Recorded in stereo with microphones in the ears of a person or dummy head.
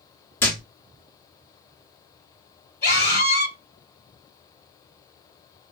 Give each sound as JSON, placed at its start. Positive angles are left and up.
{"t": 0.4, "sound": "a thud", "side_deg": 20, "distance_m": 0.6}
{"t": 2.8, "sound": "a scream", "side_deg": 65, "distance_m": 2.0}